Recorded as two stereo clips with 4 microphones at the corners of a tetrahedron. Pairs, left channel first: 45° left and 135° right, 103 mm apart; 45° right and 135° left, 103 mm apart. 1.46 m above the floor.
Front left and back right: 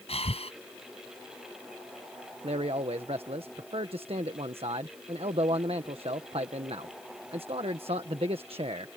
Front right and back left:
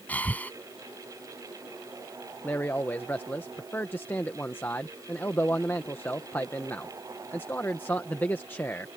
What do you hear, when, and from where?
0.1 s breathing: 30° left
2.4 s a man speaking: 115° right